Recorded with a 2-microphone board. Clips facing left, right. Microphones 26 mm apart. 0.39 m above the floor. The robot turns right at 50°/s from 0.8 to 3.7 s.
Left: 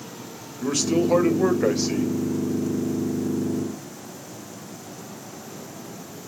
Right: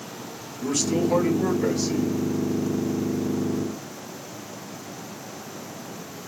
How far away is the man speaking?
About 1.7 m.